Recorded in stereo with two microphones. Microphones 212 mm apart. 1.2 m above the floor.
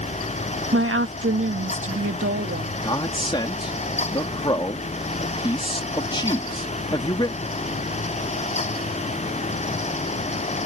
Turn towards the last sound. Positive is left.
turn(degrees=20)  # may be behind; listen again after turning